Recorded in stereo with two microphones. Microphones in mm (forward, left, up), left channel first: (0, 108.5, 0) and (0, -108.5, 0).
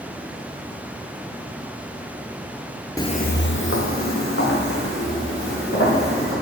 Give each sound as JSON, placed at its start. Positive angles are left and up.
{"t": 3.0, "sound": "footsteps", "side_deg": 15, "distance_m": 0.6}